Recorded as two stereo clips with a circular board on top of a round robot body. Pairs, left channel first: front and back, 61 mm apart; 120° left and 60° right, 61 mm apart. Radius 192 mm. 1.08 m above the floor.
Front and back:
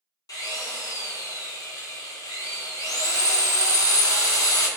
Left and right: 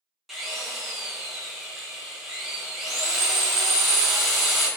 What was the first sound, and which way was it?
A drill, 30° left.